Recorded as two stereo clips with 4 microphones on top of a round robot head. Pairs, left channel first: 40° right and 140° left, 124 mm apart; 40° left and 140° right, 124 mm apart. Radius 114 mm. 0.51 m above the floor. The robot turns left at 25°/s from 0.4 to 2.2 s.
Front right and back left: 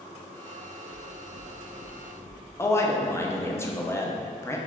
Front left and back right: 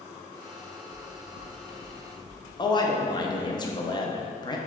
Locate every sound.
0.9 s knocking: 5° left, 0.6 m; by 2.4 s 30° right, 0.6 m
2.6 s a man speaking: 15° left, 0.7 m